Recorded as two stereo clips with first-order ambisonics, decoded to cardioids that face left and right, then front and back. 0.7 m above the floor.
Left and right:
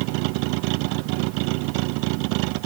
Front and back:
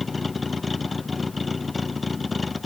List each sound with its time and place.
0.0 s a vehicle: 75° right